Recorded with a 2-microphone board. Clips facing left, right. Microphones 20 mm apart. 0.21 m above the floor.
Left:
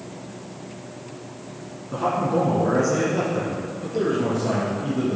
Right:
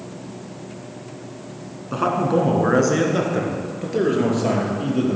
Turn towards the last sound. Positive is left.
turn(degrees=-75)  # may be behind; listen again after turning